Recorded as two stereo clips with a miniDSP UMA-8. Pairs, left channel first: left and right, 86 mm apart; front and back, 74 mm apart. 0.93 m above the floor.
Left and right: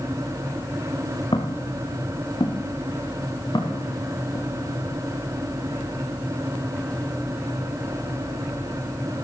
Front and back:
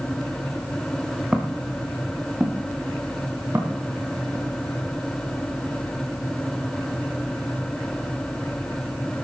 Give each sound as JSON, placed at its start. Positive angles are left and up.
{"t": 1.3, "sound": "footsteps", "azimuth_deg": 100, "distance_m": 4.5}